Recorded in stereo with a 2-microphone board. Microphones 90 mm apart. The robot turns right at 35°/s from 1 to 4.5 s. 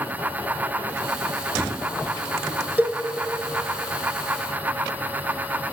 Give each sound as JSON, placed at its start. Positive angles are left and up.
{"t": 2.8, "sound": "a cowbell", "side_deg": -20, "distance_m": 0.8}